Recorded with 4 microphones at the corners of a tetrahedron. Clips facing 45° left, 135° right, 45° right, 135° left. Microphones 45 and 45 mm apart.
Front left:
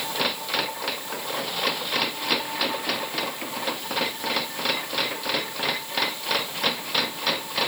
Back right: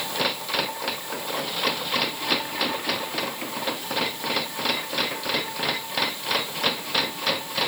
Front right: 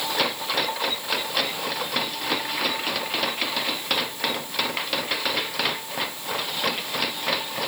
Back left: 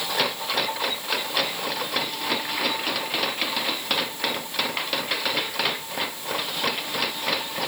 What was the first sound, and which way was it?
Only background noise.